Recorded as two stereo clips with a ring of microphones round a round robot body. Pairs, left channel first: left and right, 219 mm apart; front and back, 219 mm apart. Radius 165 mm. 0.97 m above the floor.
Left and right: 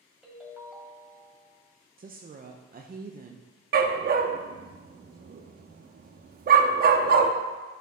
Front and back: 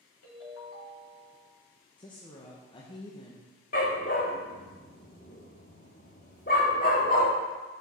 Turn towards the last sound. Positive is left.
turn(degrees=-60)